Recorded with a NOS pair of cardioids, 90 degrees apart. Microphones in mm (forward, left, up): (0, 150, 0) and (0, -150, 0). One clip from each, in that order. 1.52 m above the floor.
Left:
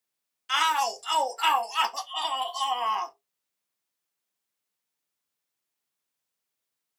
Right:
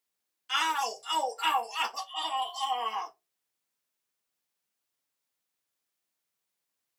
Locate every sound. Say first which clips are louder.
0.5 s a shout: left 4 dB; 30° left, 0.9 m